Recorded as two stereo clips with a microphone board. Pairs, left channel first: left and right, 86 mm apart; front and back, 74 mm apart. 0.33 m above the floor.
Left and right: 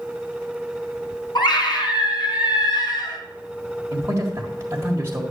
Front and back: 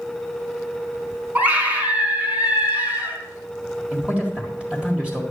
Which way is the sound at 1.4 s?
125° left.